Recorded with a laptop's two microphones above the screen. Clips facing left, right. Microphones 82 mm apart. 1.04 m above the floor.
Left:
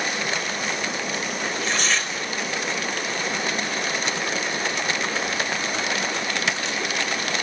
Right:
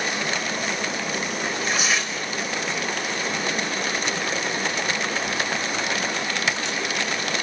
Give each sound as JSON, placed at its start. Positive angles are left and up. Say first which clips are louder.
{"t": 1.4, "sound": "tearing paper", "louder": "even", "side_deg": -10, "distance_m": 5.5}